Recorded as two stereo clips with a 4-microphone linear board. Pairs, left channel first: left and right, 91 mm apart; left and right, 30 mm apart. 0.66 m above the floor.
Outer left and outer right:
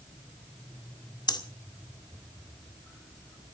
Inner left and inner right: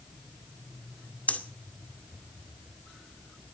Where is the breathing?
50° left (ahead or behind), 1.9 m.